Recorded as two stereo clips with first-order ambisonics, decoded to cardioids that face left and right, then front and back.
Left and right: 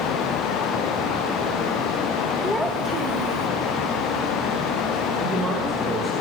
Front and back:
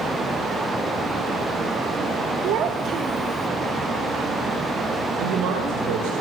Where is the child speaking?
165° left, 1.0 m; by 3.5 s 95° right, 1.3 m.